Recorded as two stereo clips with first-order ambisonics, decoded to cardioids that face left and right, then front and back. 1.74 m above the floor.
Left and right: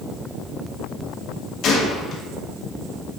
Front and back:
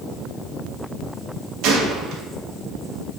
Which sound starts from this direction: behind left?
A gunshot, at 1.6 s.